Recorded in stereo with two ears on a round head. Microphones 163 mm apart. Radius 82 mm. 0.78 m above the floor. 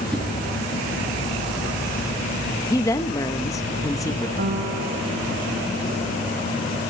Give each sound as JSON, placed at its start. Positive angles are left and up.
{"t": 0.1, "sound": "a whoosh", "side_deg": 5, "distance_m": 4.0}
{"t": 2.7, "sound": "a woman speaking", "side_deg": 15, "distance_m": 0.7}
{"t": 4.4, "sound": "a piano", "side_deg": -55, "distance_m": 1.5}